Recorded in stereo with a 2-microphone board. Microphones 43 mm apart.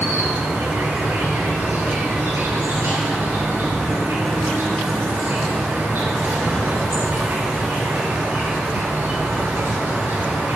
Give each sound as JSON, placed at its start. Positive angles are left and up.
{"t": 0.0, "sound": "an insect", "side_deg": -70, "distance_m": 2.0}